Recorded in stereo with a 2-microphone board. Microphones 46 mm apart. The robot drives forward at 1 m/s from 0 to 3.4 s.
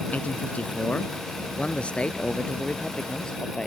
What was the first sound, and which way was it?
A man speaking, 40° left (ahead or behind).